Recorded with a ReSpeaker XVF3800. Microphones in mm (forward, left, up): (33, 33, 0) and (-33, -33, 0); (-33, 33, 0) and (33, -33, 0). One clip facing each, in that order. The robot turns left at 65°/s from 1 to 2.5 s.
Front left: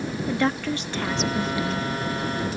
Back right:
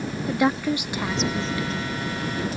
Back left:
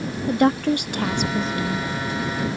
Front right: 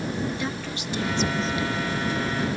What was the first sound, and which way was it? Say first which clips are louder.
A woman speaking: back right 3 dB, back left 12 dB; 150° left.